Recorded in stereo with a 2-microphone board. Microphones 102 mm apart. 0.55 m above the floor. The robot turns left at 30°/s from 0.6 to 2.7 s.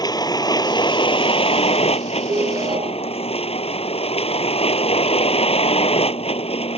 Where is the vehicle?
140° left; by 6.8 s 75° left.